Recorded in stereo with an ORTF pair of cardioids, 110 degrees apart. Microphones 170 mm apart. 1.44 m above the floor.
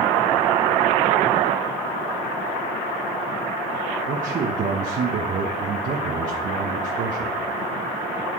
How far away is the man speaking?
About 1.5 m.